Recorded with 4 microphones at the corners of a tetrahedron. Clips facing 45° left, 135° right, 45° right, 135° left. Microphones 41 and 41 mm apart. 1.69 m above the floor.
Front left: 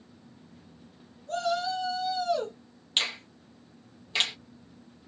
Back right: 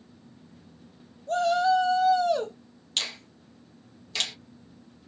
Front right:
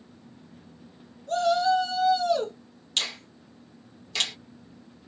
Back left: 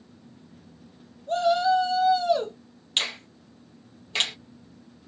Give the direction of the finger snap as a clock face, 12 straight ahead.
9 o'clock.